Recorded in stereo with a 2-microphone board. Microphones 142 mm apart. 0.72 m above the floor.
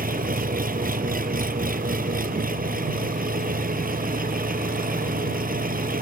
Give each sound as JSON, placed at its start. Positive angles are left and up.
{"t": 0.0, "sound": "an engine running", "side_deg": -85}